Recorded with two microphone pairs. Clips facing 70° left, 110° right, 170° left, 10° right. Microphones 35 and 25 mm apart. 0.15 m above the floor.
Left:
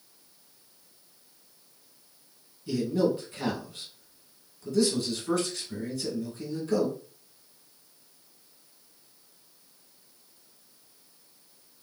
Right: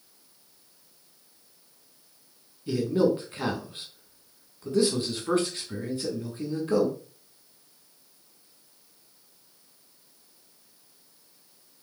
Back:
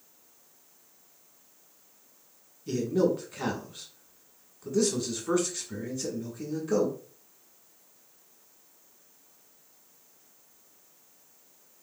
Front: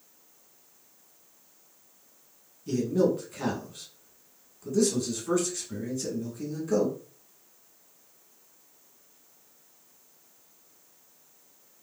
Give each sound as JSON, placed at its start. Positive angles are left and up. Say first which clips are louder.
{"t": 2.7, "sound": "a man speaking", "louder": "right 2 dB, front 1 dB", "azimuth_deg": -130, "distance_m": 1.2}